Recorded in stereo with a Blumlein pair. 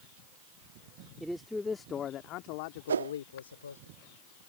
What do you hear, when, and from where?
1.2 s a man speaking: 5° right; by 3.9 s 75° left
2.9 s a whoosh: 70° right